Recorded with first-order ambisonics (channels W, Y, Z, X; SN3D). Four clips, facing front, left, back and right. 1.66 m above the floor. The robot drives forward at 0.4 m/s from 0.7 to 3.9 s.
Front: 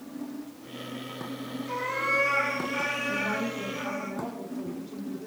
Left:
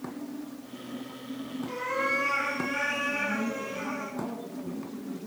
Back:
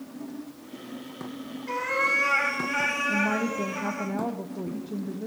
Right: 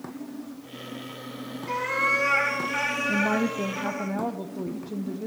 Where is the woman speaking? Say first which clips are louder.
Right 5 dB, back 3 dB; 105° right, 0.7 m; by 5.3 s 130° right, 0.8 m.